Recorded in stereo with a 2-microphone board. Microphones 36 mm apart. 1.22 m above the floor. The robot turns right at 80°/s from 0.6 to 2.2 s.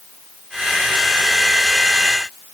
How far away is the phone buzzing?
I don't hear a phone buzzing.